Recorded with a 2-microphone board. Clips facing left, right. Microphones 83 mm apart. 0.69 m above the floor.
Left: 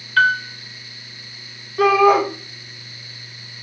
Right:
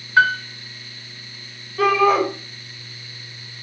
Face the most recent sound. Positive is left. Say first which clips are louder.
# left 3 dB
turn(degrees=10)  # may be behind; listen again after turning